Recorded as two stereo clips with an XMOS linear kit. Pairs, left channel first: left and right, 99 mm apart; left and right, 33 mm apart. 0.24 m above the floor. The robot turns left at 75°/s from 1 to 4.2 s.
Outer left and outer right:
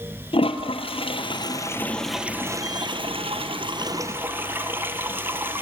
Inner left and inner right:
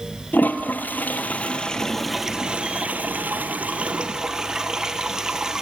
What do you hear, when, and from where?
0.3 s a toilet flushing: 85° left, 1.0 m; by 5.6 s 25° right (ahead or behind), 1.0 m